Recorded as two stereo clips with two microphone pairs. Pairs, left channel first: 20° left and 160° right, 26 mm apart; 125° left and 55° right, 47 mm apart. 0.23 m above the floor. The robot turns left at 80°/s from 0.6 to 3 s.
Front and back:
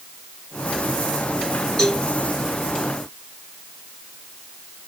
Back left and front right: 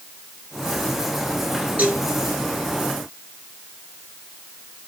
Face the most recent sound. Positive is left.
turn(degrees=-125)